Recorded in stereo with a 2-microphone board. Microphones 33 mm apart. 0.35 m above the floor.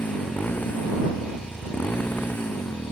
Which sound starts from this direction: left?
A motorcycle, at 0.0 s.